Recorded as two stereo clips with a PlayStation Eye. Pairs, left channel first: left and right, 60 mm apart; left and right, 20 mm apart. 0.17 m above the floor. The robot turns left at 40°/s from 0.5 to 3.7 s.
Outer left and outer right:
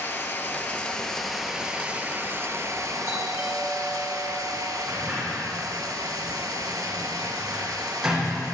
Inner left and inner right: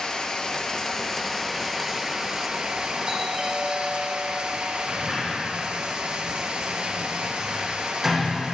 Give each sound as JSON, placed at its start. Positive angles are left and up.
{"t": 0.0, "sound": "running water", "azimuth_deg": 35, "distance_m": 1.1}
{"t": 3.1, "sound": "a doorbell", "side_deg": -40, "distance_m": 3.5}
{"t": 4.9, "sound": "a sliding door", "side_deg": -10, "distance_m": 4.5}